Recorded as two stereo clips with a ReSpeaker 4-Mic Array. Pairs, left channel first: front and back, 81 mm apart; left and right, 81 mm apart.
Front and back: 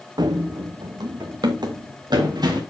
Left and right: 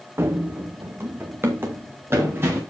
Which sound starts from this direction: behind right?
Running footsteps, at 0.2 s.